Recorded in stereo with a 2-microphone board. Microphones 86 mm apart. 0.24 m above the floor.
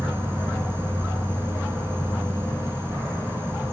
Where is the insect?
30° right (ahead or behind), 0.8 m.